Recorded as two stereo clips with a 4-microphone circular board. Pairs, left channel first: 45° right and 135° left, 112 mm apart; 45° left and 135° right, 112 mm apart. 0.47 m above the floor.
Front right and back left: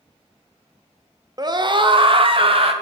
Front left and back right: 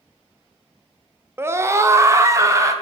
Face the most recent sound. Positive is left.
turn(degrees=165)